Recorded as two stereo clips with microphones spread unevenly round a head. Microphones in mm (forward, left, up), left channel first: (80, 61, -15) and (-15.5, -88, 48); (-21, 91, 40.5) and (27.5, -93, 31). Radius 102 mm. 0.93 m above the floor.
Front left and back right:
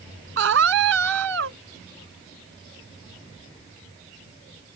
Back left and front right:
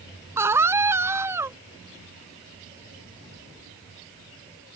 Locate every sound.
0.4 s a scream: 155° right